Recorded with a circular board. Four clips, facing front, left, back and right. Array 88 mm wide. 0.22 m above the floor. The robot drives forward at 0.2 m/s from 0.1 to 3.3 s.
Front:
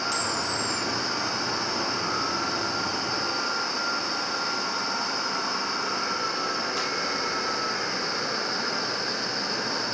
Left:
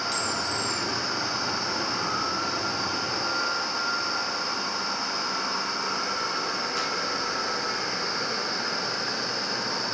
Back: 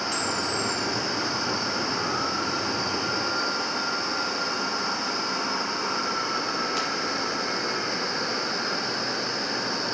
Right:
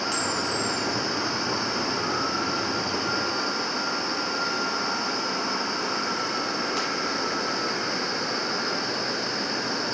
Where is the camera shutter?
110° right, 0.7 m; by 6.8 s 150° right, 1.0 m.